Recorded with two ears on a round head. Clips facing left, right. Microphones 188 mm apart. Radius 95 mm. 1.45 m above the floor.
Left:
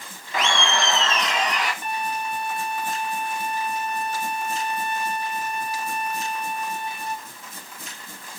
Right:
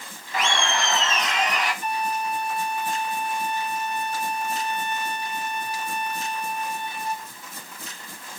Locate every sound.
0.3 s laughter: 65° left (ahead or behind), 1.0 m; by 1.7 s 60° left (ahead or behind), 2.5 m
1.8 s a violin: 40° left (ahead or behind), 2.5 m